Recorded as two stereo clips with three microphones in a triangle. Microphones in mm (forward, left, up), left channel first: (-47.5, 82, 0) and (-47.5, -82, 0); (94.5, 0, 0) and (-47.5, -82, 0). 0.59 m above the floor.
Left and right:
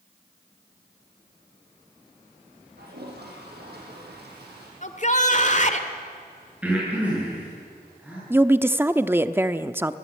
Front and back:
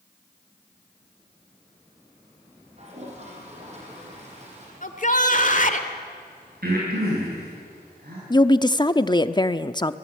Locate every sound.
2.8 s a toilet flushing: 100° right, 6 m
4.8 s a shout: 55° left, 2 m
6.6 s breathing: 170° right, 9.5 m
8.3 s a woman speaking: 20° right, 0.8 m